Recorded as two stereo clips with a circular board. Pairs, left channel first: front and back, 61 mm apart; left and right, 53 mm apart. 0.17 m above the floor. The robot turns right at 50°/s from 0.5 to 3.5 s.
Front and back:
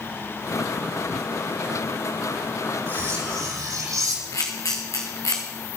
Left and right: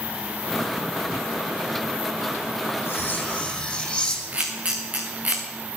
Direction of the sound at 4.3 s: 30° right.